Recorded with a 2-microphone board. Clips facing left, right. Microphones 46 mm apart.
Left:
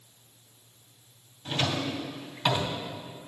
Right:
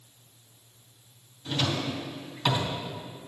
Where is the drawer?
25° left (ahead or behind), 2.5 m.